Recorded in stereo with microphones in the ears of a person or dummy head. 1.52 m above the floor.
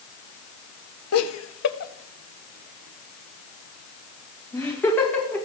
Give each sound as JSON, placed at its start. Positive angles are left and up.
{"t": 1.1, "sound": "laughter", "side_deg": 80, "distance_m": 1.3}